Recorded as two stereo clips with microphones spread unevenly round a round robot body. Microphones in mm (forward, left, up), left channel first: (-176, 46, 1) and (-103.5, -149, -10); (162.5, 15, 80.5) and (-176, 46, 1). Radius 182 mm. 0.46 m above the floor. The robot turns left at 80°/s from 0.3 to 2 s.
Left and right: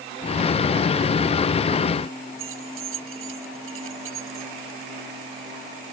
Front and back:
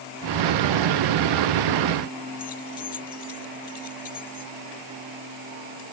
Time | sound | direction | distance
2.4 | keys jangling | 70° right | ?